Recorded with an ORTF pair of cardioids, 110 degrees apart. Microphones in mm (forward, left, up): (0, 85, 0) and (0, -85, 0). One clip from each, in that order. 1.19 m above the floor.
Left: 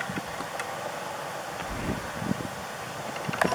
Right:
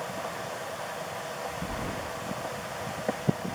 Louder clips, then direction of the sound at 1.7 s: Left 1 dB; 25° right.